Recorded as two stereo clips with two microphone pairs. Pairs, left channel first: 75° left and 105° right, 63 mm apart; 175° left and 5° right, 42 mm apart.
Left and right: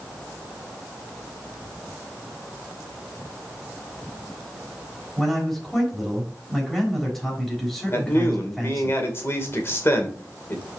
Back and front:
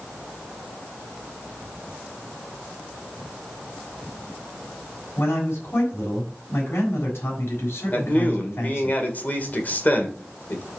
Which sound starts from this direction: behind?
A man speaking, at 5.2 s.